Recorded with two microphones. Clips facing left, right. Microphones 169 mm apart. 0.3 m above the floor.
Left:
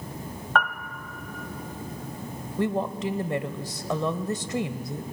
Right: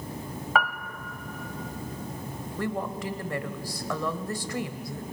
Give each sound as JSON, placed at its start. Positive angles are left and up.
{"t": 0.6, "sound": "a piano", "side_deg": -5, "distance_m": 1.2}
{"t": 2.6, "sound": "a woman speaking", "side_deg": 25, "distance_m": 1.0}